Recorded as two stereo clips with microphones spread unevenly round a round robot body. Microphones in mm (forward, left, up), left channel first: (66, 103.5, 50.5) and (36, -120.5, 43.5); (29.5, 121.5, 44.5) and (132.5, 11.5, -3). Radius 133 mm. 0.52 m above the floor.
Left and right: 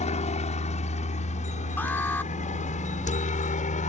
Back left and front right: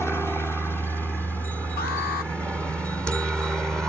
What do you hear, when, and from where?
0.0 s a helicopter: 45° left; by 3.9 s 35° left
1.8 s an alarm: 165° left